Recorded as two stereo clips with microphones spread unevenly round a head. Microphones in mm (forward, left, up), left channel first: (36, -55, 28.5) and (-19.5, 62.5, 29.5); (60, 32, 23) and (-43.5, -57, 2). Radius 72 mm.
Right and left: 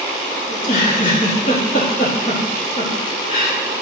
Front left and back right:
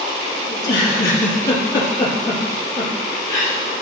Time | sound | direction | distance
0.5 | a giggle | 25° right | 4 m